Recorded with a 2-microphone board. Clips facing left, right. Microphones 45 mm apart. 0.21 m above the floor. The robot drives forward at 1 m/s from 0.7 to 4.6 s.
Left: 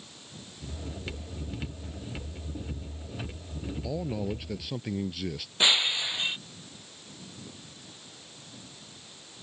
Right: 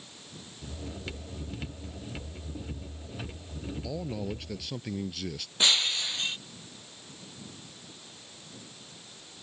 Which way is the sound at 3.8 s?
10° left (ahead or behind).